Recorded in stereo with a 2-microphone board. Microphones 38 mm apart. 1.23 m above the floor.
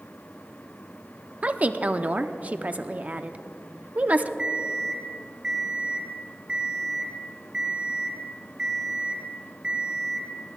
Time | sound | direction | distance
1.4 | a woman speaking | 40° right (ahead or behind) | 0.6 m
4.4 | an alarm clock | 25° right (ahead or behind) | 2.0 m